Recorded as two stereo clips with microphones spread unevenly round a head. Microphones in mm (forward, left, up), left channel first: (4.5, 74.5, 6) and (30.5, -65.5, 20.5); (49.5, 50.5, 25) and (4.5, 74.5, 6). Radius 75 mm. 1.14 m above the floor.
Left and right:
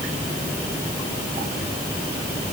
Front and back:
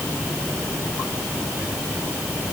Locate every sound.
Only background noise.